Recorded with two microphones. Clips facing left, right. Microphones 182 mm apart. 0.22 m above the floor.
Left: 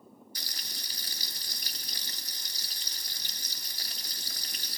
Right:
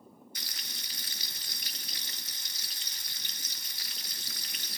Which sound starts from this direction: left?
Frying, at 0.3 s.